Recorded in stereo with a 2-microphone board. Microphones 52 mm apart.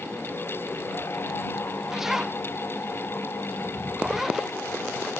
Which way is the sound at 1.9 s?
5° right (ahead or behind).